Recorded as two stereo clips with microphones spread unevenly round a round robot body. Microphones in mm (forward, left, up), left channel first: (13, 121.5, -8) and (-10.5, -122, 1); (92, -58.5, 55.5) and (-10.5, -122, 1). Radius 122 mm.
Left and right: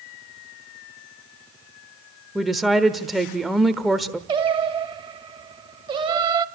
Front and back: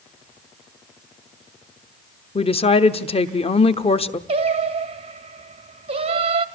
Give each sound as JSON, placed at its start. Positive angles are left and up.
{"t": 2.4, "sound": "a woman speaking", "azimuth_deg": -5, "distance_m": 1.0}
{"t": 4.3, "sound": "singing", "azimuth_deg": -165, "distance_m": 0.9}